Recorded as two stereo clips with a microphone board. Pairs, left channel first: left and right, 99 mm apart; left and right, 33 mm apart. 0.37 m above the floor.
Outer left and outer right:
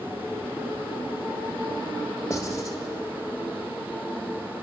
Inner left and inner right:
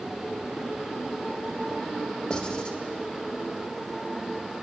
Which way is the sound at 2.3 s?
30° left (ahead or behind).